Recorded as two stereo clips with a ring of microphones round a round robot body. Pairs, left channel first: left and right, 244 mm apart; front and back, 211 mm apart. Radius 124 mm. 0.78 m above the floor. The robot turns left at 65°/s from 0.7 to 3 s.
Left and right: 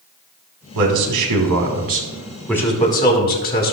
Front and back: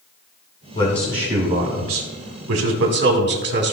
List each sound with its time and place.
0.8 s a man speaking: 70° right, 2.0 m; by 3.7 s 145° left, 2.0 m